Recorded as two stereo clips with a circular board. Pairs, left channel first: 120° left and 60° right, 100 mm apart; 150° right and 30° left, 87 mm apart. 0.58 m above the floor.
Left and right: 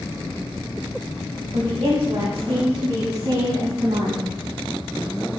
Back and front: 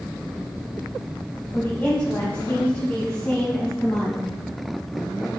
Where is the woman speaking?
80° right, 3.5 m; by 4.3 s 75° right, 5 m.